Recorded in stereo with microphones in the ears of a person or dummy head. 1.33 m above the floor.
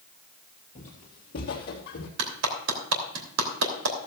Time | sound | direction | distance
0.8 | footsteps | 30° left (ahead or behind) | 1.8 m
2.2 | a clap | 85° right | 3 m